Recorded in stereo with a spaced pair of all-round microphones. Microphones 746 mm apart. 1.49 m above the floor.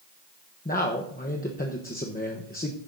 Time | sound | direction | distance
0.7 | a man speaking | 10° left (ahead or behind) | 0.9 m